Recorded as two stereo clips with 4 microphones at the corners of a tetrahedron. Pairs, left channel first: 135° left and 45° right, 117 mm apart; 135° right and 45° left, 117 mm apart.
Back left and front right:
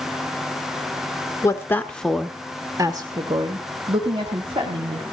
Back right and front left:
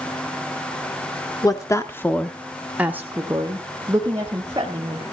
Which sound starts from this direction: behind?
A woman speaking, at 1.4 s.